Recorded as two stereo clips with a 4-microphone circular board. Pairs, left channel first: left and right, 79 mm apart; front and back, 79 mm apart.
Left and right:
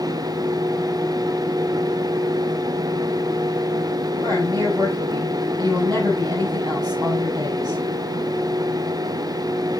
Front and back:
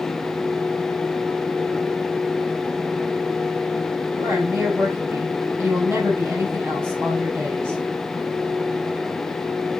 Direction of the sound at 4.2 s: 130° right.